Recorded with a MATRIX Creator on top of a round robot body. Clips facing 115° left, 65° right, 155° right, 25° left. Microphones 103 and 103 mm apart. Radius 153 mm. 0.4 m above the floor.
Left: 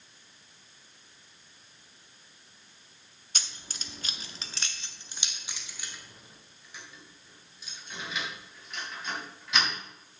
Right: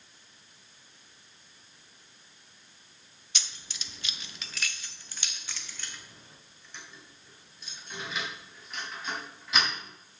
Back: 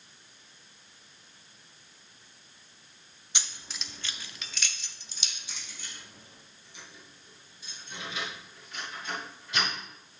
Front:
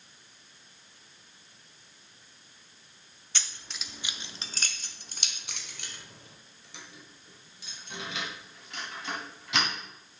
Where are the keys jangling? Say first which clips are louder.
Left 2 dB, even; 135° left, 0.9 m; by 9.7 s 20° left, 3.5 m.